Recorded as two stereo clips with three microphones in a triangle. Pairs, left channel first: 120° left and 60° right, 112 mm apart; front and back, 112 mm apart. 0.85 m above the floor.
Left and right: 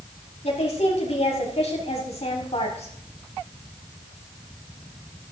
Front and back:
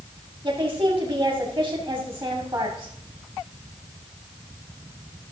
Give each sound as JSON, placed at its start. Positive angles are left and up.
{"t": 0.4, "sound": "a woman speaking", "azimuth_deg": 140, "distance_m": 2.0}